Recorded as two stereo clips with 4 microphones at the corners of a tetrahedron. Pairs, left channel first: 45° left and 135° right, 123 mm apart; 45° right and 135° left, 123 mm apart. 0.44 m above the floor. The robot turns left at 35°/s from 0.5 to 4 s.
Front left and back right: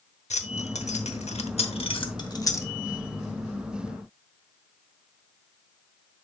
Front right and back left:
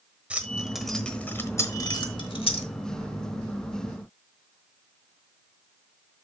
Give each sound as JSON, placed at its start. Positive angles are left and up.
{"t": 0.3, "sound": "keys jangling", "azimuth_deg": 55, "distance_m": 1.0}